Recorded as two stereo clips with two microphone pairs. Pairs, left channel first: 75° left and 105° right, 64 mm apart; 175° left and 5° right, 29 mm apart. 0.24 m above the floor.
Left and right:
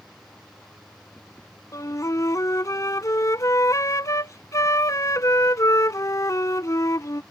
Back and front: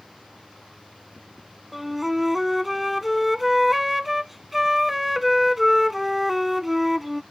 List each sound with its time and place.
1.7 s a flute: 85° left